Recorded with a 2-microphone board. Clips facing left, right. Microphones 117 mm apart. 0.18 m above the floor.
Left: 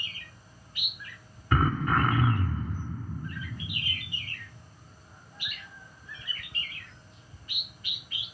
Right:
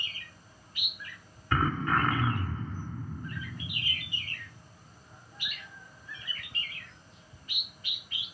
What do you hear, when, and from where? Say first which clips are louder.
1.5 s throat clearing: left 2 dB; 15° left (ahead or behind), 0.6 m